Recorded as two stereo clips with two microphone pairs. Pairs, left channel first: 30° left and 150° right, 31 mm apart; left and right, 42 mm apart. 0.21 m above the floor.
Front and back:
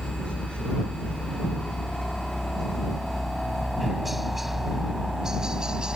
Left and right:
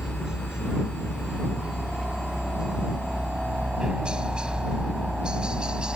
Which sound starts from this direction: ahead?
A helicopter, at 0.0 s.